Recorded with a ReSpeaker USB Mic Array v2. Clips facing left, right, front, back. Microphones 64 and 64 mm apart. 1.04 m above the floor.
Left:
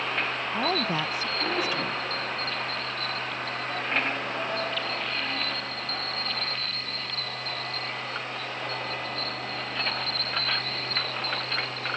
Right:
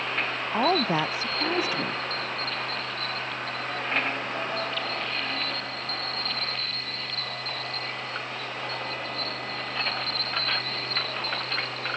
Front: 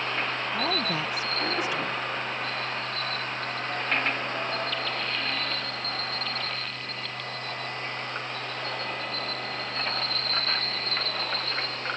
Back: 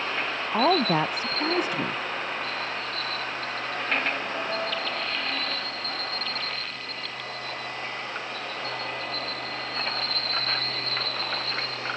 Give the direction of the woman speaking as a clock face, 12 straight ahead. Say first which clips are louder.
Right 5 dB, back 10 dB; 5 o'clock.